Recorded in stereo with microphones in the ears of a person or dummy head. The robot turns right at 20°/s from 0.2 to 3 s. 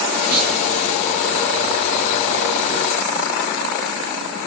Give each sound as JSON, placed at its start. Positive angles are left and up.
{"t": 0.3, "sound": "a clunk", "side_deg": -55, "distance_m": 8.5}